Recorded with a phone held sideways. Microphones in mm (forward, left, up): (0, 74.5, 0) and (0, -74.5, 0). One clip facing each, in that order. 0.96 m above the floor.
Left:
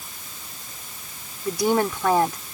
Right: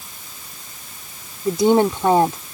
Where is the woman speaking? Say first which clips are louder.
Right 6 dB; 25° right (ahead or behind).